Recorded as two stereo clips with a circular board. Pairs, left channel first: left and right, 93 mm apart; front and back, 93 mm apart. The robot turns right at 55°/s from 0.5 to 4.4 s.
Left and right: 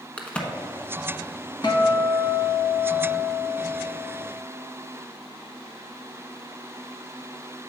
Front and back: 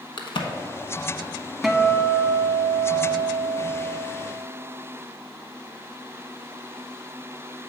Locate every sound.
0.2 s a crack: 15° left, 0.9 m
1.6 s a guitar: 90° left, 0.8 m; by 3.9 s 145° right, 0.8 m